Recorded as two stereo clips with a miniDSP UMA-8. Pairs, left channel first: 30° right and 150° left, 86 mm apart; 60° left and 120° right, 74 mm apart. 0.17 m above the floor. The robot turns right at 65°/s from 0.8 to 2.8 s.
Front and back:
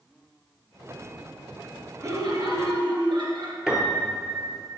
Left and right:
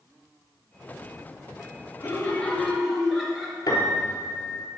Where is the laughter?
100° left, 2.5 m; by 3.6 s 150° left, 2.5 m.